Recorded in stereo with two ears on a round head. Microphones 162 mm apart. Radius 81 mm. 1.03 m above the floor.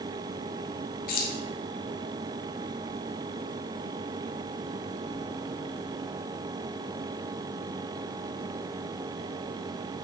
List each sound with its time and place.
1.1 s keys jangling: 55° left (ahead or behind), 1.3 m